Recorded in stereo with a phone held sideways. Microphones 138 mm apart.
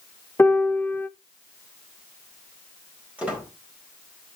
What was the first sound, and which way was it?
A piano, 15° left (ahead or behind).